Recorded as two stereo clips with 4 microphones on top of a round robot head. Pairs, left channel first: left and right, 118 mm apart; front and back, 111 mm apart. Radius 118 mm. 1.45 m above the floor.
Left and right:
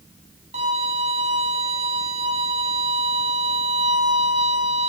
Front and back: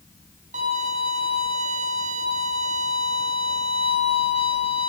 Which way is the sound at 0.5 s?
140° right.